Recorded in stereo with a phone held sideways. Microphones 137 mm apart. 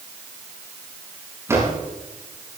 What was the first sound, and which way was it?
A drawer, 20° right (ahead or behind).